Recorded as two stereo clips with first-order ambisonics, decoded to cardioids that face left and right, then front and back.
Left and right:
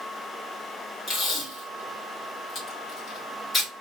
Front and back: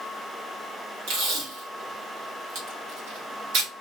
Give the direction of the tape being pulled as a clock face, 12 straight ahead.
7 o'clock.